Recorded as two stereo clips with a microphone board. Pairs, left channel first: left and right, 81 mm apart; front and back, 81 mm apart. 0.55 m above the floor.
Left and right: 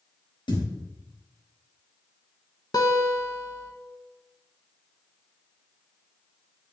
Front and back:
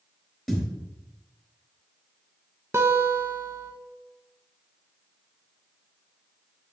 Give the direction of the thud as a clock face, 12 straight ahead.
9 o'clock.